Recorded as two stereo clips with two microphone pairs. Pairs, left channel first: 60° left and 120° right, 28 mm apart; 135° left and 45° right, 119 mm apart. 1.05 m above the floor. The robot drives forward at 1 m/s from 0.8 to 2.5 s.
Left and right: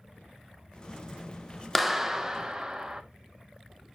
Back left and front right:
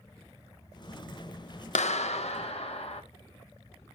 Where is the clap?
145° left, 0.5 m; by 3.0 s 165° left, 1.2 m.